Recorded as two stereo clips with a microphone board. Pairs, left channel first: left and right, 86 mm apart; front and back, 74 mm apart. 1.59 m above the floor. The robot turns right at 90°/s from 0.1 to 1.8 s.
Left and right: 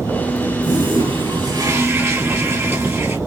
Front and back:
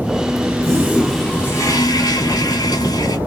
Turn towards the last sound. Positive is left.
turn(degrees=-30)